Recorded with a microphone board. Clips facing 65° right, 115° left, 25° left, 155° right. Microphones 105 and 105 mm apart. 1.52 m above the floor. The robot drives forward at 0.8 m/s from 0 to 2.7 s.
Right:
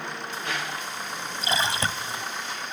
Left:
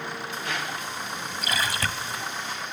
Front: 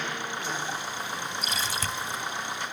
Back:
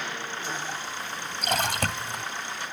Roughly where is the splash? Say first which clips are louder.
Right 2 dB, back 5 dB; behind right.